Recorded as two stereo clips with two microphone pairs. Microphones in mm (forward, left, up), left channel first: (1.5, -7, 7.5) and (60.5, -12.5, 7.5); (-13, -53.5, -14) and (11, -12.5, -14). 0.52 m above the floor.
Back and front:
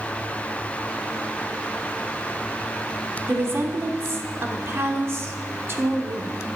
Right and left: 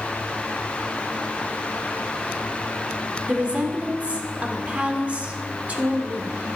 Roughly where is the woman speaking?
Ahead.